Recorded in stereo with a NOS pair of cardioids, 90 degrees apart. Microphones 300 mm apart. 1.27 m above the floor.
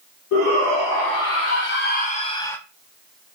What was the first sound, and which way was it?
A shout, 70° left.